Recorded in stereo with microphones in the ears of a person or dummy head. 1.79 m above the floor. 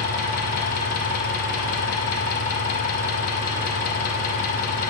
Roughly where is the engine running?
Left.